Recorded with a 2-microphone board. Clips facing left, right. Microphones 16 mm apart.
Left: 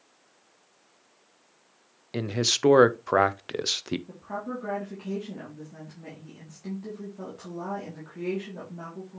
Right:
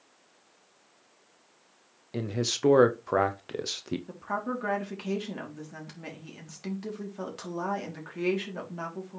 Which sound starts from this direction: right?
A woman speaking, at 4.1 s.